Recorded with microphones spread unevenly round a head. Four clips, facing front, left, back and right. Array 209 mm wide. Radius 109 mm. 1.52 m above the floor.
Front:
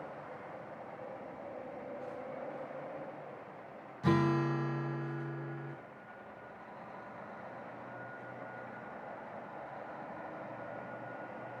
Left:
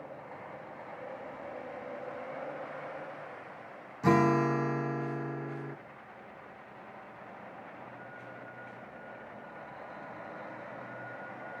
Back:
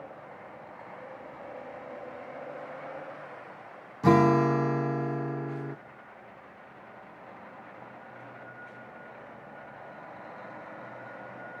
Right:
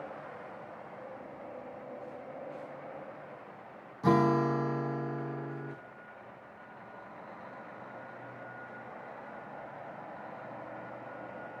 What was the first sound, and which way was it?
A guitar, straight behind.